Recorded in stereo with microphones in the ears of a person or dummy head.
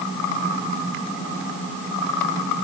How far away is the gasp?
No gasp in this recording.